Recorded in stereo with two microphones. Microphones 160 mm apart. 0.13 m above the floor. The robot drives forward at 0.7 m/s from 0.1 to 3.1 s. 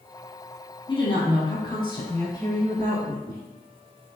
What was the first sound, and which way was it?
A woman speaking, 30° left (ahead or behind).